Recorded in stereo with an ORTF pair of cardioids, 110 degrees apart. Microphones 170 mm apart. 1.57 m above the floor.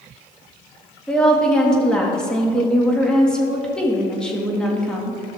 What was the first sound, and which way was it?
A woman speaking, 5° left.